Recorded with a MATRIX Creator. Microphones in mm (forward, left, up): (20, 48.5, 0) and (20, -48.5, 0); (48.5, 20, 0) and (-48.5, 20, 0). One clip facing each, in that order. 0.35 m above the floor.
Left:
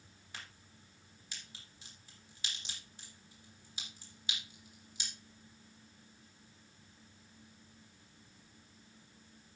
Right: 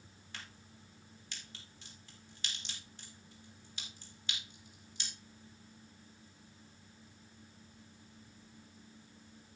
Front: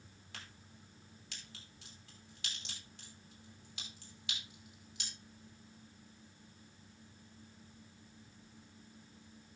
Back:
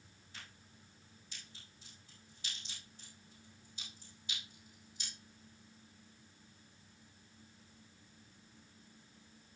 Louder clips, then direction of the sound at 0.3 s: Even, front 2 dB; 10° left.